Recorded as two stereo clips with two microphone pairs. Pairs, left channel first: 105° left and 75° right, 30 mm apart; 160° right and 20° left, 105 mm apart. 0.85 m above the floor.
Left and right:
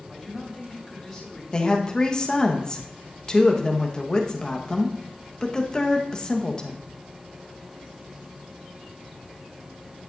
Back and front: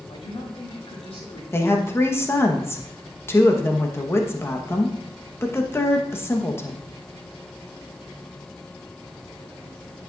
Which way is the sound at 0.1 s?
165° right.